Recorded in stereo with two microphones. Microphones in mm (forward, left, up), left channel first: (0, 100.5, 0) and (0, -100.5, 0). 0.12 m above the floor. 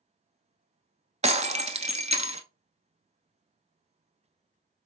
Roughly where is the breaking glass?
Right.